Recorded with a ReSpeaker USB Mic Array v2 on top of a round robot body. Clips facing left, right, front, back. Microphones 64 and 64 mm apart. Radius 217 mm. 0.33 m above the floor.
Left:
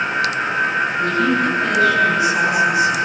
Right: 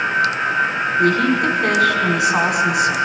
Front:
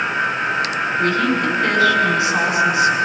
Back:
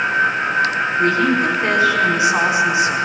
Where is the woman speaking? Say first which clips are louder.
Right 3 dB, back 2 dB; 110° right, 5.5 m.